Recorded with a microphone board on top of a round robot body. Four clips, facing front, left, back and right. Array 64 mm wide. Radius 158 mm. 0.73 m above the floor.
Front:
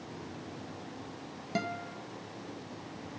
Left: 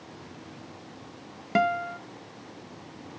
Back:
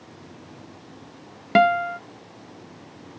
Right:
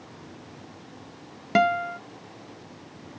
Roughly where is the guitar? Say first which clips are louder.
Right 3 dB, back 18 dB; behind.